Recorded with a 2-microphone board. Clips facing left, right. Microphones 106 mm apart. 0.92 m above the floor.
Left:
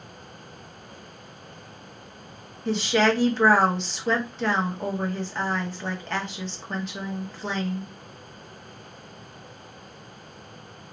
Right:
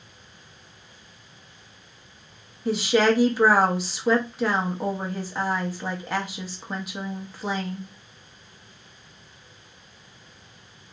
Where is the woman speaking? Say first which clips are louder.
Right 2 dB; 10° right (ahead or behind), 0.7 m.